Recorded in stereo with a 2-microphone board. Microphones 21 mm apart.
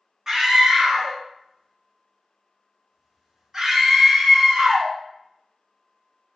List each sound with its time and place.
0.3 s a scream: 20° right (ahead or behind), 0.7 m